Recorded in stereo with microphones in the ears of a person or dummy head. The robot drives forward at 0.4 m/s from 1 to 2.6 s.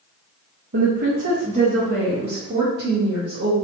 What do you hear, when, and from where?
0.7 s a woman speaking: 50° right (ahead or behind), 0.7 m; by 3.5 s 30° right (ahead or behind), 1.2 m